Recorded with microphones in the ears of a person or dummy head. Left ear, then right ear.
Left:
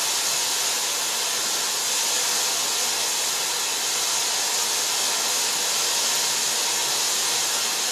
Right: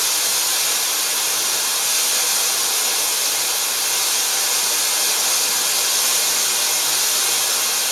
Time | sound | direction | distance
0.0 | running water | 60° right (ahead or behind) | 0.9 m